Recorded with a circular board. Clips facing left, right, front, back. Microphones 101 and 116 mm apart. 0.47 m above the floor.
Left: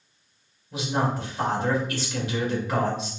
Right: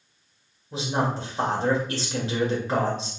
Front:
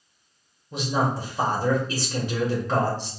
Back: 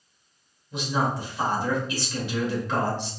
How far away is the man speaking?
About 1.9 m.